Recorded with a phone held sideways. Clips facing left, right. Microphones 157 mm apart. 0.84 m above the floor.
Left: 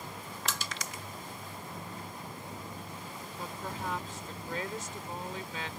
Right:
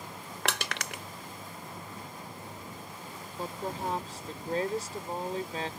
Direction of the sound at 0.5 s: 70° right (ahead or behind).